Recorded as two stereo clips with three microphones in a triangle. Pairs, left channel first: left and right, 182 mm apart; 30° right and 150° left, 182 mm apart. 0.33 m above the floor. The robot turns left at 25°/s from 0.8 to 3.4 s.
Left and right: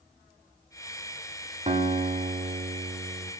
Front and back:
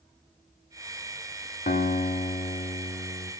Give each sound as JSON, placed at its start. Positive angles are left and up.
{"t": 1.7, "sound": "a guitar", "azimuth_deg": -45, "distance_m": 1.2}